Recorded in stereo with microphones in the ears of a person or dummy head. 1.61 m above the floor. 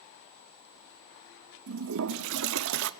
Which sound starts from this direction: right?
A toilet flushing, at 1.7 s.